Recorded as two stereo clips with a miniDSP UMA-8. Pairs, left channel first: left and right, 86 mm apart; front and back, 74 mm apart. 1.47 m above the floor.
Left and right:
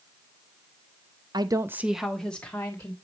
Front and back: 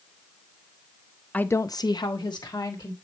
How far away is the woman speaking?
About 0.5 m.